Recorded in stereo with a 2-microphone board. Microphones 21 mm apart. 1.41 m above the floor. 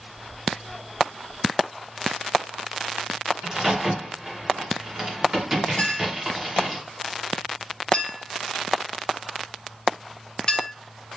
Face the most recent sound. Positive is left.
turn(degrees=45)  # may be behind; listen again after turning